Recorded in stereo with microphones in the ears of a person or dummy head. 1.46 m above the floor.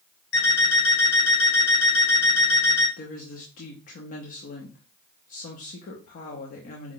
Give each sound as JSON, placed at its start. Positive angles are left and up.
{"t": 0.3, "sound": "an alarm clock", "side_deg": 75, "distance_m": 3.0}
{"t": 3.0, "sound": "a woman speaking", "side_deg": 50, "distance_m": 0.7}